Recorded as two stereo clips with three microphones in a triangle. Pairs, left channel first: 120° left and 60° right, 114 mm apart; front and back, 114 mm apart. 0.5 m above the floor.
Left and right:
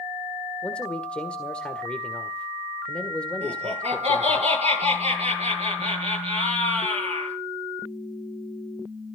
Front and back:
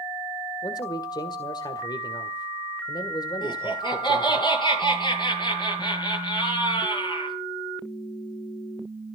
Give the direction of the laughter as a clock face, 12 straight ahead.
2 o'clock.